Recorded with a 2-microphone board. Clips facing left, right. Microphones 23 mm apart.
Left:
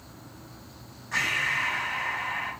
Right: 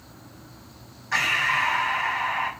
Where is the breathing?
45° right (ahead or behind), 5 m.